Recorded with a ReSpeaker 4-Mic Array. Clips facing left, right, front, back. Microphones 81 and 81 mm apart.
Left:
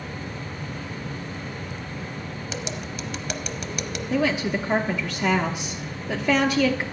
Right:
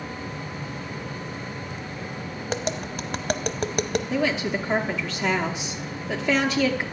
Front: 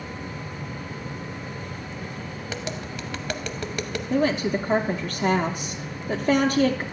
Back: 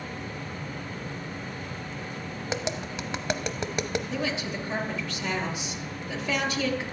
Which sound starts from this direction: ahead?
A woman speaking, at 4.1 s.